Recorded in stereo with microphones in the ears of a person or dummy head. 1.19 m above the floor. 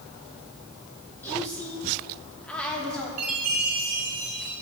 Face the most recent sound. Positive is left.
turn(degrees=-35)  # may be behind; listen again after turning